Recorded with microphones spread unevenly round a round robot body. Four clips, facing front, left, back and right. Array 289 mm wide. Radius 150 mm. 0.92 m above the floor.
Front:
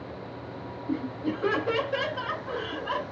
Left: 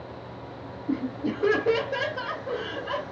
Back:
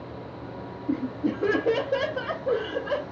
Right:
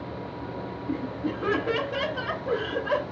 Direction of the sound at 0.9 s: 145° left.